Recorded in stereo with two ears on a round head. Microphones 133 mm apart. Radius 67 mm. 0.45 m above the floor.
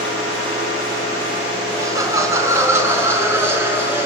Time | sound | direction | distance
1.8 | laughter | 20° right (ahead or behind) | 4.5 m